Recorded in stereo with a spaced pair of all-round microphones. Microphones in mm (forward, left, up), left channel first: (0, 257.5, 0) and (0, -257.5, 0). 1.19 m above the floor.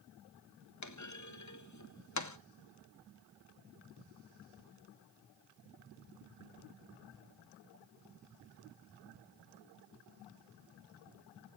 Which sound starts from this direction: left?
A clunk, at 0.8 s.